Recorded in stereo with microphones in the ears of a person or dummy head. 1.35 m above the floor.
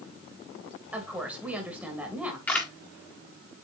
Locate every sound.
0.9 s a woman speaking: 5° right (ahead or behind), 2 m
2.5 s a camera shutter: 10° left (ahead or behind), 1.9 m